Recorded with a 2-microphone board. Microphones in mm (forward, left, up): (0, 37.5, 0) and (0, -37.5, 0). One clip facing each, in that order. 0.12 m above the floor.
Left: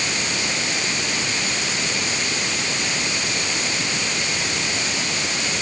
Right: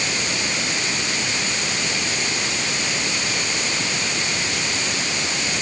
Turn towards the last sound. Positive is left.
No sound to turn to.